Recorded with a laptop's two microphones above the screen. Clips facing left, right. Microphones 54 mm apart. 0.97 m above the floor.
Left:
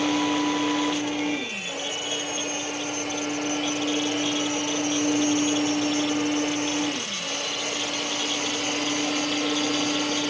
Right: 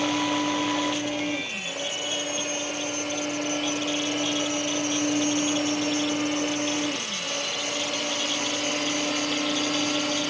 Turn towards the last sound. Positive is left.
turn(degrees=75)  # may be behind; listen again after turning